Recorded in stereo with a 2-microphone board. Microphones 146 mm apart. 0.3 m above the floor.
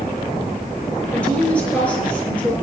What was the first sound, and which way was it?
A woman speaking, 10° left (ahead or behind).